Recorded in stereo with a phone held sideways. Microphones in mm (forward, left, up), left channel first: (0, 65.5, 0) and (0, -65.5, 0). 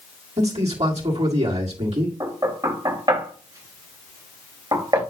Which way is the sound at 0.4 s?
55° right (ahead or behind).